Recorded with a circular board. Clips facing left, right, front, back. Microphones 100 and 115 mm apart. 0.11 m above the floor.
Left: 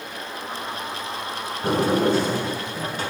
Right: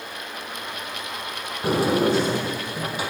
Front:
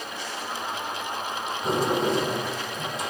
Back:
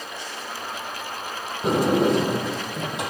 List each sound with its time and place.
1.6 s a sliding door: 170° right, 4 m